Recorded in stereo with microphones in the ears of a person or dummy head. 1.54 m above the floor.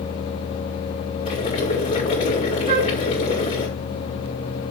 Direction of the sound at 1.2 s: 35° left (ahead or behind).